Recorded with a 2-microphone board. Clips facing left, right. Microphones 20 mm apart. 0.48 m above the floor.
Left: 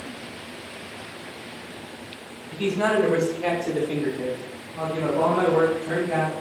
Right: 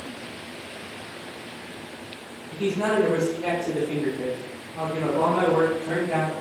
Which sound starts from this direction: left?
A man speaking, at 2.5 s.